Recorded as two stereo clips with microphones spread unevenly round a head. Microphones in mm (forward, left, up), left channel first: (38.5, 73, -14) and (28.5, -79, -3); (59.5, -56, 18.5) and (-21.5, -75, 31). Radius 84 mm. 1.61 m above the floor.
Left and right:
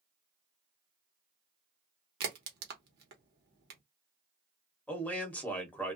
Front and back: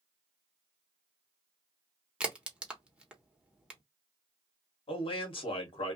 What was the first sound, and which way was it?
A crack, 90° right.